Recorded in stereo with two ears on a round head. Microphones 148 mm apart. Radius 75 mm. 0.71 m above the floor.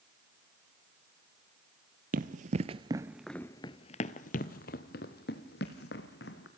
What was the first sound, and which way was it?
Running footsteps, 55° right (ahead or behind).